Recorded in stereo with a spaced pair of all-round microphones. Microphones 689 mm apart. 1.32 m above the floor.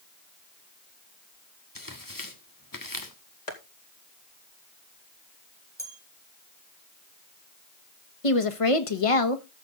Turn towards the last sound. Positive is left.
turn(degrees=50)  # may be behind; listen again after turning